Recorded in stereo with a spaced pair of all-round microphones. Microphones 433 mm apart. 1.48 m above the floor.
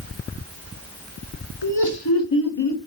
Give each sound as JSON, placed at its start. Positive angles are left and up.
{"t": 1.6, "sound": "laughter", "side_deg": 60, "distance_m": 1.4}